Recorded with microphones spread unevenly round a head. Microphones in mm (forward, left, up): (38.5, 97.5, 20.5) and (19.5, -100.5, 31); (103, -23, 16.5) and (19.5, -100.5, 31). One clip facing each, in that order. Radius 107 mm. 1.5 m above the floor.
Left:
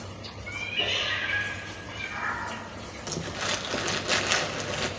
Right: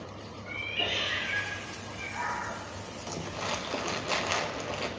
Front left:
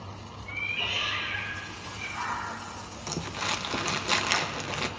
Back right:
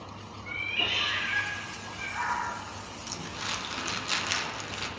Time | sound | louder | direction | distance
0.5 | a cat meowing | left 1 dB, back right 2 dB | 175° right | 2.0 m
3.1 | crumpling | left 2 dB, front left 6 dB | 10° left | 1.1 m